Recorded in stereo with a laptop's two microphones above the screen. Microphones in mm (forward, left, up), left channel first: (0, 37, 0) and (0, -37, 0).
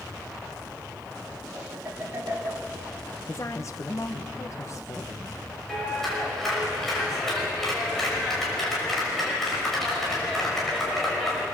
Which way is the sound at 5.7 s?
5° left (ahead or behind).